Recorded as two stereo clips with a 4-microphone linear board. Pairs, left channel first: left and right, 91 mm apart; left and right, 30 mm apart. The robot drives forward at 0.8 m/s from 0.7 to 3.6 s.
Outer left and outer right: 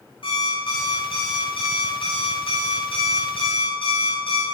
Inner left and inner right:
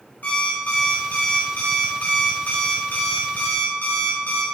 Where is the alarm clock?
65° left (ahead or behind), 5.5 m; by 4.4 s 80° left, 5 m.